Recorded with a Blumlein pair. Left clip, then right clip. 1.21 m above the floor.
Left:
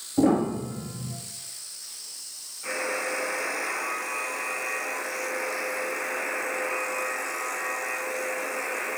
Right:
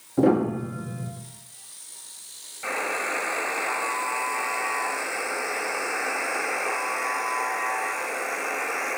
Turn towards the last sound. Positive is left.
turn(degrees=-30)